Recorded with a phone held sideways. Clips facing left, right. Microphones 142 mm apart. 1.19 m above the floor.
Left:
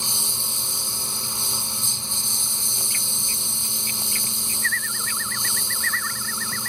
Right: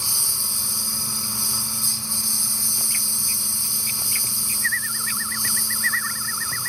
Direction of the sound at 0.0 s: 20° left (ahead or behind).